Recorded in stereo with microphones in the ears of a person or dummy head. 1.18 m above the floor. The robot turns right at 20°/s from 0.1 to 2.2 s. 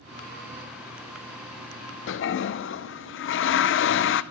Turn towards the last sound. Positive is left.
turn(degrees=60)  # may be behind; listen again after turning